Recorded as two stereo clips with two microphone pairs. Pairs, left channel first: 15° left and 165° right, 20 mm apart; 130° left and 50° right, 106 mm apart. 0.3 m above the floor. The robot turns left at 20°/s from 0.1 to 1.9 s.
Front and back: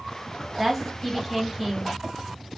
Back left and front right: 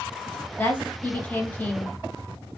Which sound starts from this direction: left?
A woman speaking, at 0.6 s.